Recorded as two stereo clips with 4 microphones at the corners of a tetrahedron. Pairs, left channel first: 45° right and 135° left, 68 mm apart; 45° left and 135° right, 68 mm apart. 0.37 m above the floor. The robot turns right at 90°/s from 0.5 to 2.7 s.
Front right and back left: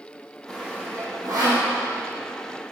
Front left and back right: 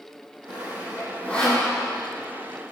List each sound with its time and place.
0.5 s sawing: 45° left, 6 m; by 1.7 s 150° left, 6 m